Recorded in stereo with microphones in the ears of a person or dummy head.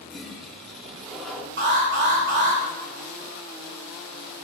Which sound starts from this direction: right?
An alarm, at 1.6 s.